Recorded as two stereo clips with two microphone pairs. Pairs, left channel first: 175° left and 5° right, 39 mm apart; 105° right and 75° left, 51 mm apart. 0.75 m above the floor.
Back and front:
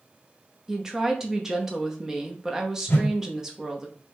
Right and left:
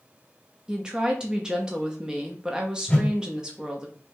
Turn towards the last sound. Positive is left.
turn(degrees=180)